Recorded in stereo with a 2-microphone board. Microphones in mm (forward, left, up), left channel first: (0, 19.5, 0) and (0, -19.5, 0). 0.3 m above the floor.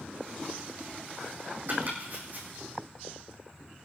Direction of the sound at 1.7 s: 50° right (ahead or behind).